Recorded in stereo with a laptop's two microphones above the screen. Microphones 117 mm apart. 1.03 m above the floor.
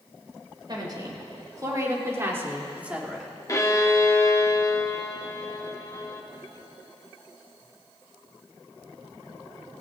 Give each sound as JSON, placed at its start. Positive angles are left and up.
{"t": 0.7, "sound": "a woman speaking", "side_deg": -40, "distance_m": 4.5}
{"t": 3.5, "sound": "a violin", "side_deg": 30, "distance_m": 1.3}